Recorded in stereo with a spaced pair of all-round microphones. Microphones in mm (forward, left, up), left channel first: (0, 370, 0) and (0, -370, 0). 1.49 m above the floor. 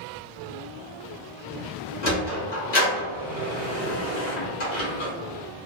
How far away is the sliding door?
About 1.0 m.